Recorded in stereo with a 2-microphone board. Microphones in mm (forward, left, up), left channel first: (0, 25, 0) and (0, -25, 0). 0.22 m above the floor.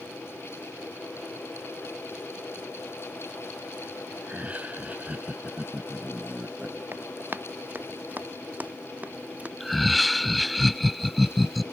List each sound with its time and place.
4.2 s laughter: 30° right (ahead or behind); by 6.8 s 25° right (ahead or behind)
6.9 s running footsteps: 40° right (ahead or behind); by 9.5 s 25° right (ahead or behind)
9.6 s laughter: centre (ahead or behind)